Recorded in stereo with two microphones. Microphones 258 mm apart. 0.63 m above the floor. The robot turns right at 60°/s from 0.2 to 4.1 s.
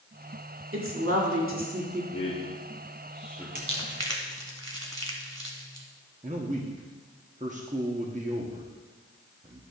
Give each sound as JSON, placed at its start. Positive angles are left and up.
{"t": 0.7, "sound": "a woman speaking", "azimuth_deg": -105, "distance_m": 1.7}
{"t": 2.1, "sound": "a man speaking", "side_deg": 50, "distance_m": 1.3}
{"t": 3.5, "sound": "crumpling", "side_deg": -45, "distance_m": 1.3}
{"t": 6.2, "sound": "a man speaking", "side_deg": -30, "distance_m": 0.8}